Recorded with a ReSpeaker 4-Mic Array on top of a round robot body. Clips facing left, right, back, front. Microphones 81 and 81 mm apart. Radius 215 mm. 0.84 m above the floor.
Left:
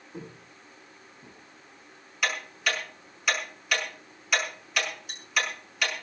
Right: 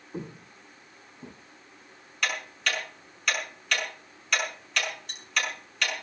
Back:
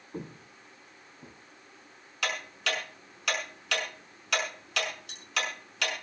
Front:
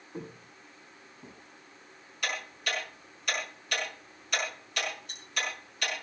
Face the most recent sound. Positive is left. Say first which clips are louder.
# left 1 dB, back 2 dB
turn(degrees=175)